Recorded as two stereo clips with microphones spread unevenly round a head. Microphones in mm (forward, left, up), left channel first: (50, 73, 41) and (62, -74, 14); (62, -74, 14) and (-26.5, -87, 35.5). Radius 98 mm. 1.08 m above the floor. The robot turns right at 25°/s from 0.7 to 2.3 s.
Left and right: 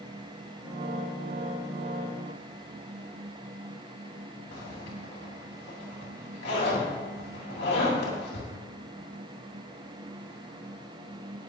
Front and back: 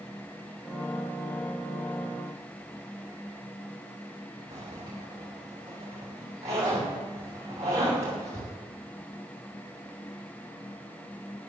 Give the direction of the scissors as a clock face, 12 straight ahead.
I don't hear scissors.